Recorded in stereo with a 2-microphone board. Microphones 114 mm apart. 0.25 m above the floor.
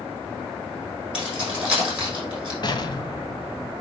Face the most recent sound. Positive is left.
turn(degrees=40)  # may be behind; listen again after turning